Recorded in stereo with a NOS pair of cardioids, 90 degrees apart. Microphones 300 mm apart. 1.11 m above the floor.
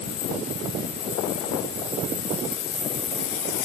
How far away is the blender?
No blender in this recording.